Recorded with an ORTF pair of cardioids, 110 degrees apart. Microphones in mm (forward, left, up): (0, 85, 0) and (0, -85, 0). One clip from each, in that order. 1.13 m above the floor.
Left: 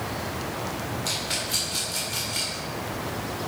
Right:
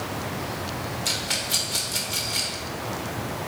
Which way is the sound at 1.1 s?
25° right.